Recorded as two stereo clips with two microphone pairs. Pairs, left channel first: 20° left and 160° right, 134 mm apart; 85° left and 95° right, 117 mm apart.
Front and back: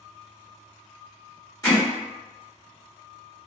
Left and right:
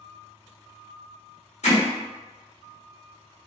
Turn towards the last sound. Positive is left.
turn(degrees=85)